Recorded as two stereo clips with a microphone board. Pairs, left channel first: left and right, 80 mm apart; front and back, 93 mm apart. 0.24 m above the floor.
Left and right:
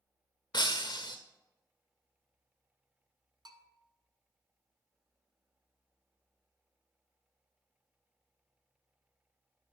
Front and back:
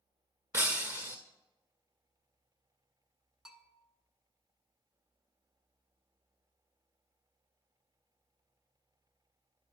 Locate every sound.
0.5 s breaking glass: 115° left, 1.3 m
3.5 s a bell: 95° right, 1.0 m